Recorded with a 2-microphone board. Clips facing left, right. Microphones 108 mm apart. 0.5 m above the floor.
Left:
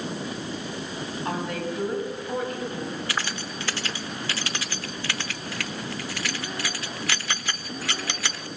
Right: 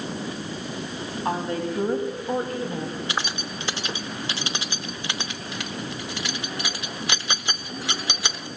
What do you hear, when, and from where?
1.2 s a woman speaking: 30° right (ahead or behind), 4 m; by 3.0 s 35° right (ahead or behind), 3.5 m
3.1 s keys jangling: 20° right (ahead or behind), 0.7 m